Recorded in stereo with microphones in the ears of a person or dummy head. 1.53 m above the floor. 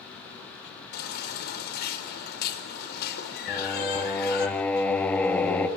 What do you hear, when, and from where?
0.9 s a baby crying: 55° left (ahead or behind), 4 m
3.5 s singing: 5° left (ahead or behind), 2.5 m